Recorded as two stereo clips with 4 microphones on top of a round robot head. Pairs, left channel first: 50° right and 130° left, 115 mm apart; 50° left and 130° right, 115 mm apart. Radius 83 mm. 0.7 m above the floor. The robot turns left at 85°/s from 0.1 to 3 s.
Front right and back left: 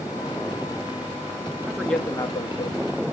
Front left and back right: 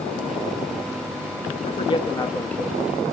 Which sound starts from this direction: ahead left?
A man speaking, at 1.7 s.